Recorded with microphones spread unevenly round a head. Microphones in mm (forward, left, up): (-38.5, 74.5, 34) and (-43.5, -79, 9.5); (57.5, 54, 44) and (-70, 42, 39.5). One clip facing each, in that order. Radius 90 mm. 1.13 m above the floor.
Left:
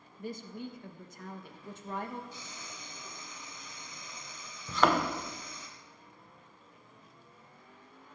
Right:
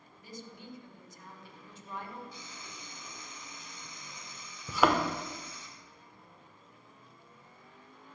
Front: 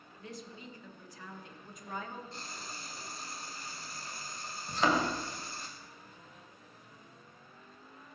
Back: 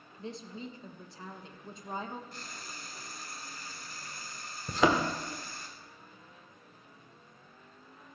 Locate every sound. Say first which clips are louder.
0.2 s a woman speaking: left 8 dB, back 5 dB; 125° left, 1.5 m
2.3 s frying: left 1 dB, front 1 dB; 65° left, 2 m
4.7 s a thud: even, back 3 dB; straight behind, 1.3 m